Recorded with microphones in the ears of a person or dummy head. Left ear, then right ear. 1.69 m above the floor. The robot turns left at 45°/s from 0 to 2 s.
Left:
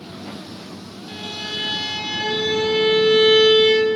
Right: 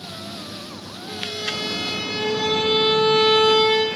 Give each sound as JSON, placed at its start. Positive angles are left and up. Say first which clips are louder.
{"t": 1.1, "sound": "a violin", "louder": "right 2 dB", "azimuth_deg": -100, "distance_m": 10.0}